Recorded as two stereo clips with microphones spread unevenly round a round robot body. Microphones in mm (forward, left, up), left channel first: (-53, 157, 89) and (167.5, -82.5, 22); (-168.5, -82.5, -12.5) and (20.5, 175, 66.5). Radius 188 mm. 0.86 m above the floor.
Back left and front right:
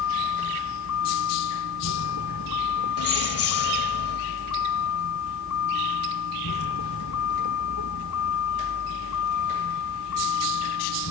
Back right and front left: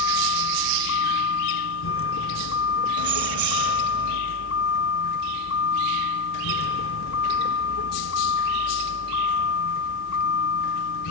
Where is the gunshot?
I don't hear a gunshot.